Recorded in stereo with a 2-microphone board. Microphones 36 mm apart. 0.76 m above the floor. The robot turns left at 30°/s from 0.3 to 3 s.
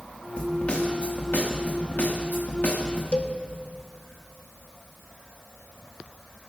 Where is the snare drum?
140° left, 1.7 m; by 3.0 s 60° left, 1.7 m.